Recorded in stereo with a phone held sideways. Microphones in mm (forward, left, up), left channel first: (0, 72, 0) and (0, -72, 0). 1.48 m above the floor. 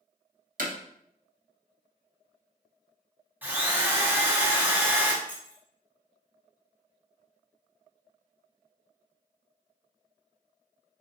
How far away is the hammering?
About 1.0 m.